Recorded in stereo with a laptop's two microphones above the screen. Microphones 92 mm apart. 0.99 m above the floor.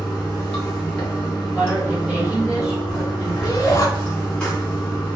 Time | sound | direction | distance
0.0 | running water | 10° left (ahead or behind) | 1.8 m
1.6 | a woman speaking | 15° right (ahead or behind) | 2 m
3.4 | a shout | 30° left (ahead or behind) | 1.4 m